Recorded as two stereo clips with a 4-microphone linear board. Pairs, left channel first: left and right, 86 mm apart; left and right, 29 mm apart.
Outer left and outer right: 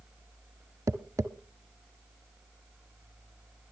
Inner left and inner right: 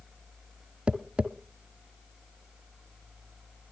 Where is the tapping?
35° right (ahead or behind), 0.7 m.